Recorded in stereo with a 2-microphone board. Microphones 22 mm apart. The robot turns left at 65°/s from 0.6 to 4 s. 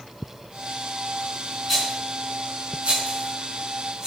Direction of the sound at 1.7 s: Centre (ahead or behind).